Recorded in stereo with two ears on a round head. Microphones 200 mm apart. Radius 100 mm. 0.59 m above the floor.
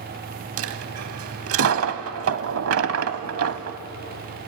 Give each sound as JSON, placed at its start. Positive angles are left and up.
{"t": 0.6, "sound": "a dropped coin", "side_deg": -65, "distance_m": 0.9}